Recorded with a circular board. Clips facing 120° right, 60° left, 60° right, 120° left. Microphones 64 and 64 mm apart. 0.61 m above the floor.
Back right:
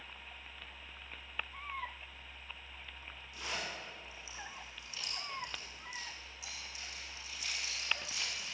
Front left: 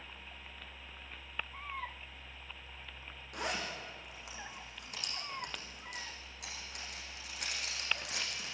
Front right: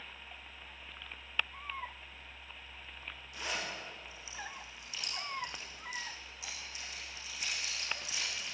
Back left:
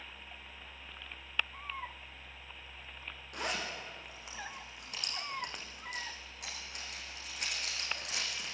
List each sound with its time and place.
3.3 s a zipper: 85° left, 8 m